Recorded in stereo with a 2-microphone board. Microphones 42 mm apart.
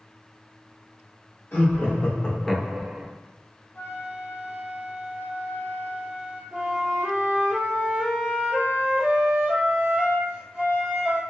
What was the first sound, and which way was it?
Laughter, 50° left (ahead or behind).